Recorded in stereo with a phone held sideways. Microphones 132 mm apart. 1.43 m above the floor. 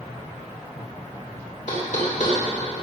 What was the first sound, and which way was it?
Knocking, 70° left (ahead or behind).